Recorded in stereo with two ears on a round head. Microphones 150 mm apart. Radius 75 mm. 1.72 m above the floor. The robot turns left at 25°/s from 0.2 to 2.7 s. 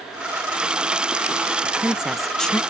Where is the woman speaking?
10° right (ahead or behind); by 2.6 s 10° left (ahead or behind).